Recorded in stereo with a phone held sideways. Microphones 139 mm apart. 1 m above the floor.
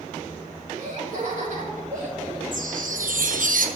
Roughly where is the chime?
Right.